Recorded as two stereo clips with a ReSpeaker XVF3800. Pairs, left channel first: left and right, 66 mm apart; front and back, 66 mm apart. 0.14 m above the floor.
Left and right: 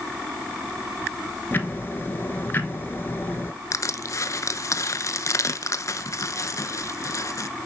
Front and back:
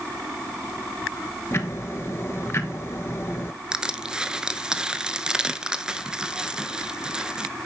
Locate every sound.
1.5 s ticking: 40° left, 1.0 m
3.7 s crushing: 105° left, 0.6 m